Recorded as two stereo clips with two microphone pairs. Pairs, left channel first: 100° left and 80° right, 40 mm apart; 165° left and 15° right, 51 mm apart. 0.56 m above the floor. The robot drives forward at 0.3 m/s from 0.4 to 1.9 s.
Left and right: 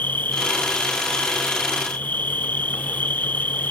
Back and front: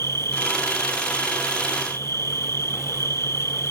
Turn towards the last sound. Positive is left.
turn(degrees=140)